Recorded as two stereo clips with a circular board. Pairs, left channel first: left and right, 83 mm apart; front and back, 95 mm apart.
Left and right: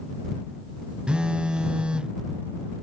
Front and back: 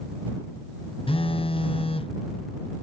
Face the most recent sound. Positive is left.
turn(degrees=-10)